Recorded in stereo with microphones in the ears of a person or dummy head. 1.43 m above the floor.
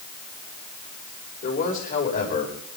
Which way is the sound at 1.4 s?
40° left (ahead or behind).